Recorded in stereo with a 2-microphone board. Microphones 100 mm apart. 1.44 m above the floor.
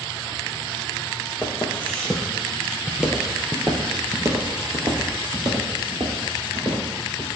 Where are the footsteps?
20° left (ahead or behind), 1.8 m; by 7.3 s 50° right (ahead or behind), 3 m.